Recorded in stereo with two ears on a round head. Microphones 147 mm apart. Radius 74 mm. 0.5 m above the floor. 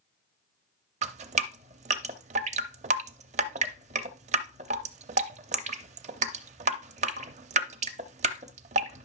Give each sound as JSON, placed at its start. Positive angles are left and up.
{"t": 1.0, "sound": "dripping", "side_deg": -45, "distance_m": 0.6}